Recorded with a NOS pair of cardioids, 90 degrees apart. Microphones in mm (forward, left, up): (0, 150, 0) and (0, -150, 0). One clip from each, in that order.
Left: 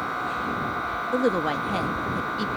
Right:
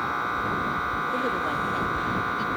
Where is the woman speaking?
50° left.